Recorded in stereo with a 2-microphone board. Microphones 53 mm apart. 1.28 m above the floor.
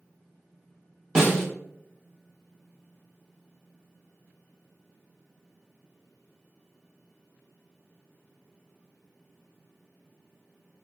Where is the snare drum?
10° right (ahead or behind), 1.0 m.